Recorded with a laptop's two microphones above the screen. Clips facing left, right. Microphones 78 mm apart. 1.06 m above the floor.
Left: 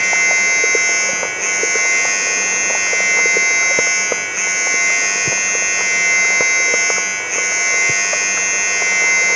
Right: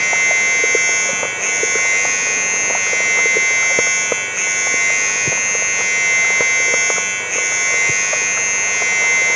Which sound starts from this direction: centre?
A machine running, at 0.0 s.